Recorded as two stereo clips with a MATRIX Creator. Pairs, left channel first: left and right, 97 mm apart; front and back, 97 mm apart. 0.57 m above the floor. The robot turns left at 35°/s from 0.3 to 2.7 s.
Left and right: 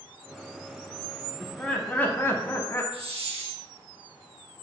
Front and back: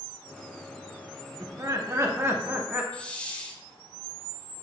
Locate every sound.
1.4 s laughter: 165° left, 0.7 m; by 2.8 s 120° left, 0.7 m
2.9 s a hiss: 80° right, 0.6 m